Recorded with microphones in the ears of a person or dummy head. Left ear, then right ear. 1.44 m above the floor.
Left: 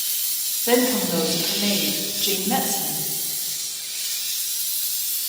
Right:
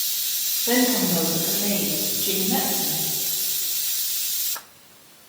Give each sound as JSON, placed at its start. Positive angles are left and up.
{"t": 0.7, "sound": "a woman speaking", "side_deg": 75, "distance_m": 2.0}